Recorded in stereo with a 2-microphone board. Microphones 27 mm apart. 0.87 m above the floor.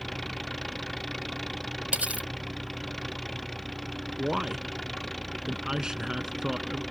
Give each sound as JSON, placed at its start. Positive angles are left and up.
{"t": 0.0, "sound": "an engine running", "side_deg": 5}
{"t": 1.9, "sound": "cutlery clinking", "side_deg": -90}
{"t": 4.2, "sound": "a man speaking", "side_deg": -25}